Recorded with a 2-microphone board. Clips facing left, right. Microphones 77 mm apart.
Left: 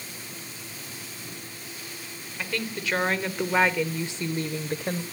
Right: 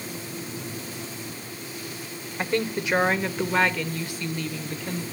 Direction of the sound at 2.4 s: 30° right (ahead or behind).